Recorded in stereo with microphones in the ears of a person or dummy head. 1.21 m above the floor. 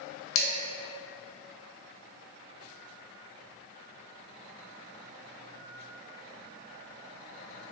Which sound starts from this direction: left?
Dishes clattering, at 0.3 s.